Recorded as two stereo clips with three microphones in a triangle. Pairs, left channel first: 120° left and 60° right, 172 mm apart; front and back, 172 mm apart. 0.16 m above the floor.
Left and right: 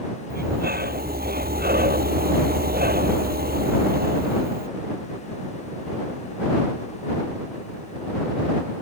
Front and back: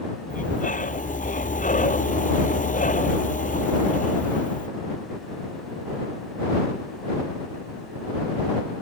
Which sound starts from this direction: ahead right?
Breathing, at 0.3 s.